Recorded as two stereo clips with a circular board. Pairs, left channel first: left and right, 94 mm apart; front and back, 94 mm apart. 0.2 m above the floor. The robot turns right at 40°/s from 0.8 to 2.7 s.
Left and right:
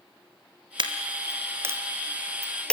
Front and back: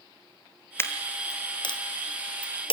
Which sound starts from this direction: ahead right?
A dropped coin, at 0.8 s.